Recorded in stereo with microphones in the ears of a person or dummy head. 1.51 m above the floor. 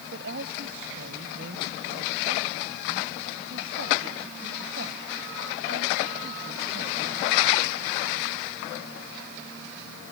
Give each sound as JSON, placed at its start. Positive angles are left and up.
{"t": 0.1, "sound": "a woman speaking", "side_deg": -70}